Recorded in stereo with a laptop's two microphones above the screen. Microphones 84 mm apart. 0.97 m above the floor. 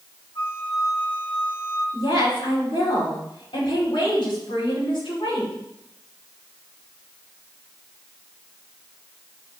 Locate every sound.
0.3 s a flute: 55° left (ahead or behind), 2.5 m
1.9 s a woman speaking: 85° left, 6 m